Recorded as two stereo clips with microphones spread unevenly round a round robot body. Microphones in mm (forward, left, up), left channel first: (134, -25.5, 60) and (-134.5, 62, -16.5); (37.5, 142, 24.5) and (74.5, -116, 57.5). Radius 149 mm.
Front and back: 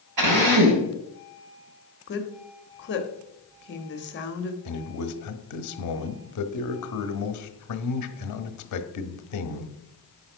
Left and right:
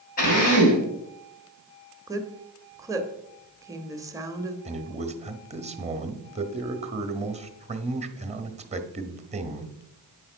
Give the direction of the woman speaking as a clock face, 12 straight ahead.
12 o'clock.